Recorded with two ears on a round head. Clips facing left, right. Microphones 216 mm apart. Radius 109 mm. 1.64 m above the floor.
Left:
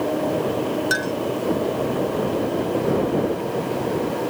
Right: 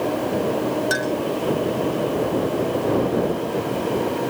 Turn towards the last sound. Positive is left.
turn(degrees=5)  # may be behind; listen again after turning